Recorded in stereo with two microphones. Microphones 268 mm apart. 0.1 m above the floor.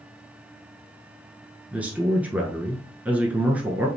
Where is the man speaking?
5° right (ahead or behind), 1.1 m.